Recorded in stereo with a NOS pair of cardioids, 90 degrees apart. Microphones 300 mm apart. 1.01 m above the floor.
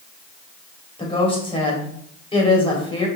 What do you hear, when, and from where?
1.0 s a woman speaking: 15° left, 4 m